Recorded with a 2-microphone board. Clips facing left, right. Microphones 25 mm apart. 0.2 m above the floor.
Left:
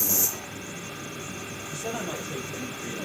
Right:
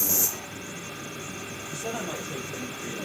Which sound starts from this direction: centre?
A man speaking, at 1.7 s.